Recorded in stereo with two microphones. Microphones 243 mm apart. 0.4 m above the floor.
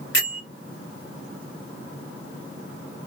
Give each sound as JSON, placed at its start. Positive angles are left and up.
{"t": 0.1, "sound": "a bell", "side_deg": 50, "distance_m": 1.8}